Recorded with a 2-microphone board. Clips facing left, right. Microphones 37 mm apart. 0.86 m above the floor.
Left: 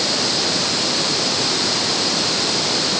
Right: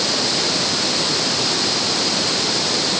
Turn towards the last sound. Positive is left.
No sound to turn to.